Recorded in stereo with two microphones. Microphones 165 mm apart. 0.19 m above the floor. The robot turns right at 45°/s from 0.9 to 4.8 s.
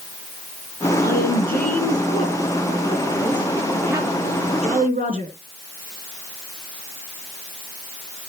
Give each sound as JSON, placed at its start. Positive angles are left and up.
{"t": 1.0, "sound": "a woman speaking", "azimuth_deg": 65, "distance_m": 4.5}